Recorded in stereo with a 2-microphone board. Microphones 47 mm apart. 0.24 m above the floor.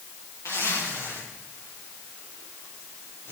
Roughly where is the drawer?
I don't hear a drawer.